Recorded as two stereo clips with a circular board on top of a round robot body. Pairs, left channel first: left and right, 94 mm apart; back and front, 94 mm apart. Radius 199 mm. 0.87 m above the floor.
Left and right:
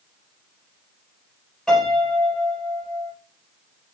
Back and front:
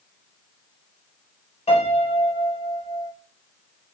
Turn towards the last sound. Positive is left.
turn(degrees=175)